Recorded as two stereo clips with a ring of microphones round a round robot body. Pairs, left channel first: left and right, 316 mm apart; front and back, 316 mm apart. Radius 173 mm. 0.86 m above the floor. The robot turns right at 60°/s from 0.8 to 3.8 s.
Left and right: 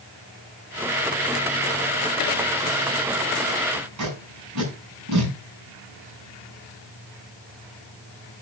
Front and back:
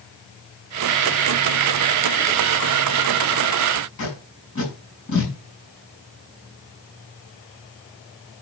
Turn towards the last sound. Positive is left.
turn(degrees=-55)